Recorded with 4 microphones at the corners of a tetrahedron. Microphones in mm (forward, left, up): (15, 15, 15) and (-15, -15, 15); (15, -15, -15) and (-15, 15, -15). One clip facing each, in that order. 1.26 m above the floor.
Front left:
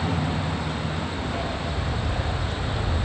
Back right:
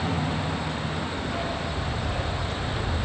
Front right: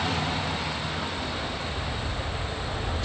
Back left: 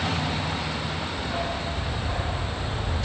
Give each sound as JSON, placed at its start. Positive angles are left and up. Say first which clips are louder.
{"t": 1.2, "sound": "a dog barking", "louder": "even, back left 3 dB", "azimuth_deg": 130, "distance_m": 3.0}